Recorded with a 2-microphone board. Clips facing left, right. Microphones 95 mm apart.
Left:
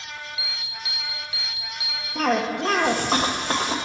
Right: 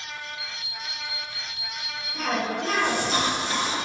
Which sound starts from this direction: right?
An alarm, at 0.4 s.